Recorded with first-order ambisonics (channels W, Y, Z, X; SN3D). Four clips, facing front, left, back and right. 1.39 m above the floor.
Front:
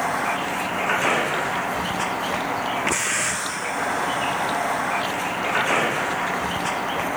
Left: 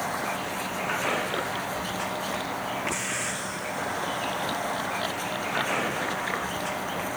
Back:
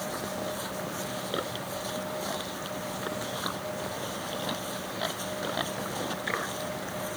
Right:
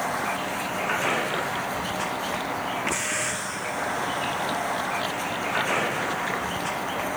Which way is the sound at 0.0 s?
10° right.